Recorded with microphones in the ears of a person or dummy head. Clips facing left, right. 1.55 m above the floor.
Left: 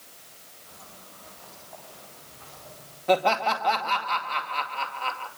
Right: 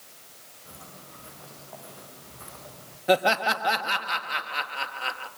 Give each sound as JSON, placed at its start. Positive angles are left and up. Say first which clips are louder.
{"t": 0.7, "sound": "footsteps", "louder": "right 3 dB", "side_deg": -45, "distance_m": 9.0}
{"t": 3.1, "sound": "laughter", "louder": "even", "side_deg": -15, "distance_m": 1.8}